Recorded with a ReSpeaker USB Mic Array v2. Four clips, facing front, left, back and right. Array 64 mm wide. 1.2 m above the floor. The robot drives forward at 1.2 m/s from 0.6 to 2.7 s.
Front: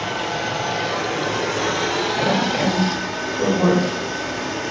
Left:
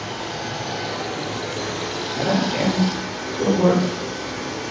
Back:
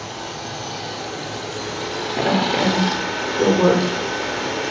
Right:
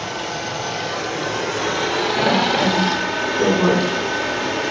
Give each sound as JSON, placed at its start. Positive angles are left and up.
{"t": 0.0, "sound": "running water", "azimuth_deg": -25, "distance_m": 2.5}
{"t": 2.2, "sound": "a woman speaking", "azimuth_deg": -160, "distance_m": 4.0}